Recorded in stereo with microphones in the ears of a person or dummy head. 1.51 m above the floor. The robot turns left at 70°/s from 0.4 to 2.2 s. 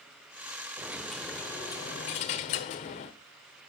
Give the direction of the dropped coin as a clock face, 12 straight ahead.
5 o'clock.